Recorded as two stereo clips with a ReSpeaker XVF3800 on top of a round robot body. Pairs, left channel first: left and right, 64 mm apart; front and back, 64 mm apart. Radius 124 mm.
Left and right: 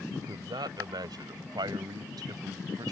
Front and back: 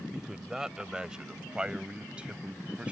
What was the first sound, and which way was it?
A man speaking, 100° right.